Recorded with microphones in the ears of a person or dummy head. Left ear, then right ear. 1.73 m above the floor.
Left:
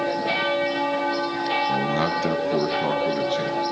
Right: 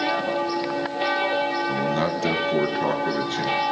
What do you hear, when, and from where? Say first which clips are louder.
1.7 s a man speaking: left 1 dB; 10° left (ahead or behind), 1.0 m; by 3.6 s 15° right (ahead or behind), 3 m